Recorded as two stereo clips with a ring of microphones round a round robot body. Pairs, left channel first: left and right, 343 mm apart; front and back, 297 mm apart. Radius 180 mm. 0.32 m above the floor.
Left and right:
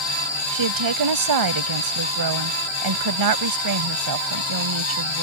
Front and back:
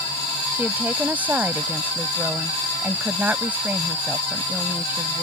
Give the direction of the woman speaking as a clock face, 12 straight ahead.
3 o'clock.